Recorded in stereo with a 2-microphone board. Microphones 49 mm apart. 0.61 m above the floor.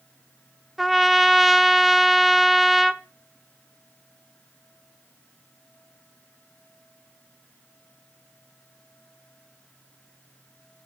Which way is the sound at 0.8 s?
5° right (ahead or behind).